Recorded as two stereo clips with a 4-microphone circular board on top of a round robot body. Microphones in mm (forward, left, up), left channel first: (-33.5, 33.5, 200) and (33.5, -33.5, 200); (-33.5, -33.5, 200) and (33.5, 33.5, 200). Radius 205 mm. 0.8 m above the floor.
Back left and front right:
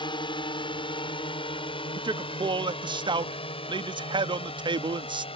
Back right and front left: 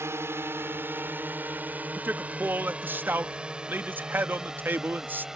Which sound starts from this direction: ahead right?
A man speaking, at 1.9 s.